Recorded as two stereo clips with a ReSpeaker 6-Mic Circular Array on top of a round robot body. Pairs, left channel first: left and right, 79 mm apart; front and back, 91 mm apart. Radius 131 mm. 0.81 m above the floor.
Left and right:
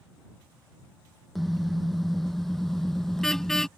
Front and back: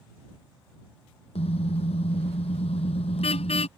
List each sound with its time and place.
1.4 s a car horn: straight ahead; by 3.7 s 5° left